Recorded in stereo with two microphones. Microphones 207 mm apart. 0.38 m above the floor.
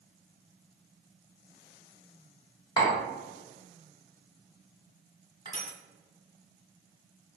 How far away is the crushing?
About 1.0 m.